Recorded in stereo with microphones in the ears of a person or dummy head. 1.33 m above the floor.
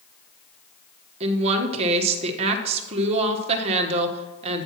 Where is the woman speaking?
35° right (ahead or behind), 1.3 m.